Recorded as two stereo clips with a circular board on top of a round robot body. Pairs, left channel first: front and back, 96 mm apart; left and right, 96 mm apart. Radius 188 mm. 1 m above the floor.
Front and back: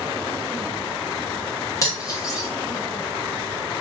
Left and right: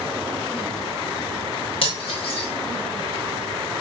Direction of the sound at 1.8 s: 60° left.